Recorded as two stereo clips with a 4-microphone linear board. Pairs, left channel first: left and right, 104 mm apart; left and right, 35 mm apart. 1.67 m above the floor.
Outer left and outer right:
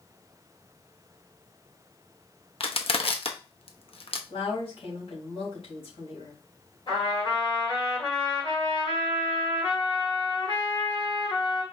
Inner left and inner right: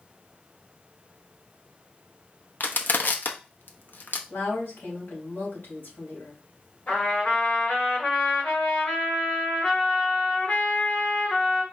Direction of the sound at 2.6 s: 65° left (ahead or behind).